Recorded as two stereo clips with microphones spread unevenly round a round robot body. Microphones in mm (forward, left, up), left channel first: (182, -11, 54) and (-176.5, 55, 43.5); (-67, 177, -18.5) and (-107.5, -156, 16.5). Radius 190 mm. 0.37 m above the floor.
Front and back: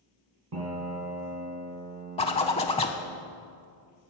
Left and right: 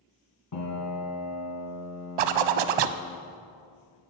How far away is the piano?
About 3 m.